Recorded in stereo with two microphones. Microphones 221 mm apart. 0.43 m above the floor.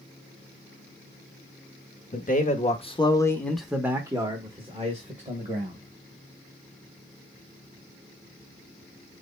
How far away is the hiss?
I don't hear a hiss.